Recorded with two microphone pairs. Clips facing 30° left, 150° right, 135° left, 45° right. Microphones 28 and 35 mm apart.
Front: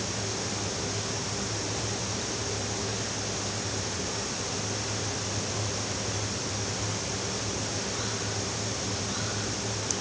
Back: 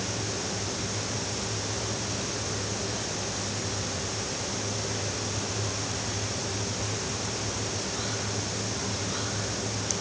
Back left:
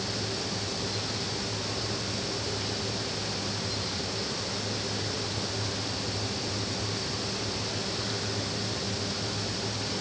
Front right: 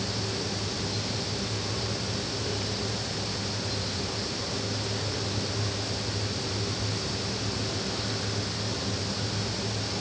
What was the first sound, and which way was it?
Only background noise.